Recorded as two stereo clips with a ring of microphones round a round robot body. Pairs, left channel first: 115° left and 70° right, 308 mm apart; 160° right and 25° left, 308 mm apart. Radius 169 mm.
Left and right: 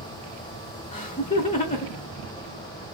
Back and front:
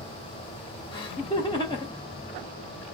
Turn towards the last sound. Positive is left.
turn(degrees=145)